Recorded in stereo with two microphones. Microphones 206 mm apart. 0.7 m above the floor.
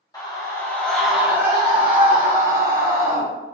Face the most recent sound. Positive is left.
turn(degrees=-35)  # may be behind; listen again after turning